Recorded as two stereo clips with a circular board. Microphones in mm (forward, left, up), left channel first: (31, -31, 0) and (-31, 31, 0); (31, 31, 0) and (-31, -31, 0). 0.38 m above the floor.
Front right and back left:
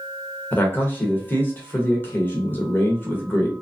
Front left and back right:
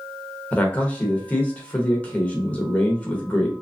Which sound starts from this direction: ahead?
A man speaking, at 0.5 s.